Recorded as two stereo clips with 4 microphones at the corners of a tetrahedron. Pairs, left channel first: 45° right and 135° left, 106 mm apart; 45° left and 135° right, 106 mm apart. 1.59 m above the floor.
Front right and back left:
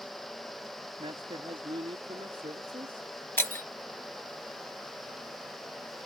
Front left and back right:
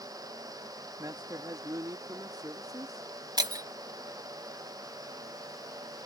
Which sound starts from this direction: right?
Breaking glass, at 3.4 s.